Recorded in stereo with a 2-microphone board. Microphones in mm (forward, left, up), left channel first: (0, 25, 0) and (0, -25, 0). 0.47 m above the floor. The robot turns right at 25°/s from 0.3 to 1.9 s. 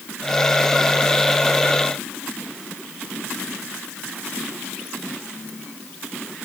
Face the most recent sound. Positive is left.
No sound to turn to.